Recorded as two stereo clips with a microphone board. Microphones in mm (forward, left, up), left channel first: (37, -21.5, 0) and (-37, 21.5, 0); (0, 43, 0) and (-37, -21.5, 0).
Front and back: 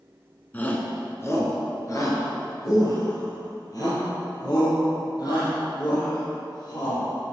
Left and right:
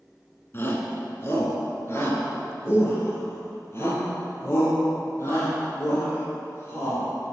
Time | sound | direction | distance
0.5 | a shout | 30° left | 1.2 m